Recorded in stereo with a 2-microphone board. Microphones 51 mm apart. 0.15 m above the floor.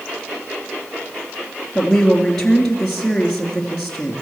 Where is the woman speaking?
10° left (ahead or behind), 3 m.